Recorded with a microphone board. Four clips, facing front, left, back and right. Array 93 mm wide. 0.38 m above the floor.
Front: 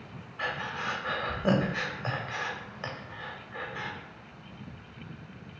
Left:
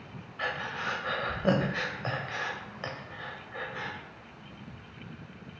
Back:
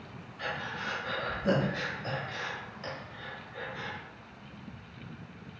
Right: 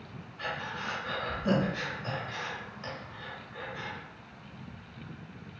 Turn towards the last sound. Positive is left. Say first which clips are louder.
# left 2 dB, front 3 dB
turn(degrees=50)